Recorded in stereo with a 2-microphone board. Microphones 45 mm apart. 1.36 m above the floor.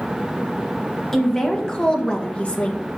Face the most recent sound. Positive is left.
turn(degrees=40)  # may be behind; listen again after turning